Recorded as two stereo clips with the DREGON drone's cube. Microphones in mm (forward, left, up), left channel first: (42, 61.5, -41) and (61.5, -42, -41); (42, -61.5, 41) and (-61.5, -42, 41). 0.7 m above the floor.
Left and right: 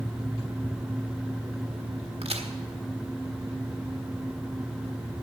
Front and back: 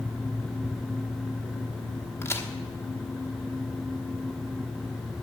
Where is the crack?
75° right, 1.3 m.